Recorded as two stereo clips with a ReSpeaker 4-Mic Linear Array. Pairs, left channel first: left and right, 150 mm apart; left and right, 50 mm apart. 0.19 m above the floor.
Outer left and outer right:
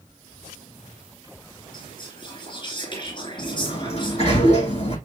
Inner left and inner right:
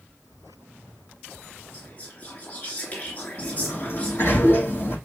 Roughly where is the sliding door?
Left.